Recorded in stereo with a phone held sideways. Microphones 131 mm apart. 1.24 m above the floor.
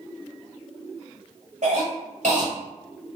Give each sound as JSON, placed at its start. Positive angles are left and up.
{"t": 1.6, "sound": "a cough", "side_deg": -70, "distance_m": 1.3}